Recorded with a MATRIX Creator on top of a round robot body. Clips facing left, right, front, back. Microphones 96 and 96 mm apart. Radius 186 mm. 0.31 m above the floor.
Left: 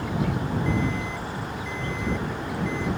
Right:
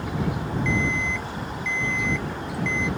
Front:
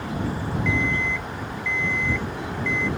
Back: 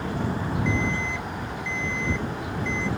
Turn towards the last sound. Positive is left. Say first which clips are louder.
# right 1 dB, front 4 dB
turn(degrees=-110)